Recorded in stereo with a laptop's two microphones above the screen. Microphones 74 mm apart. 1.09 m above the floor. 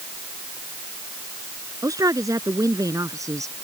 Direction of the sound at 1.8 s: 50° right (ahead or behind).